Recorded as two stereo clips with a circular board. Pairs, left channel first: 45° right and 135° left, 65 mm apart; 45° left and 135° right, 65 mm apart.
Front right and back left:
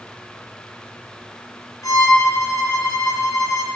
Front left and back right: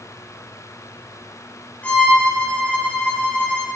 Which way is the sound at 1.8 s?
25° right.